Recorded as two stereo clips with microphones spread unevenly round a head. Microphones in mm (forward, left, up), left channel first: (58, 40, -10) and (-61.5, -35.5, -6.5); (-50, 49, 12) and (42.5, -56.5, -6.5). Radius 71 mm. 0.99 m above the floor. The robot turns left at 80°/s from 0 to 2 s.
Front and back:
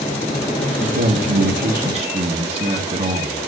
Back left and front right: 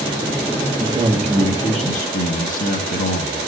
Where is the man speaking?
100° right, 1.8 m; by 3.4 s 165° left, 1.8 m.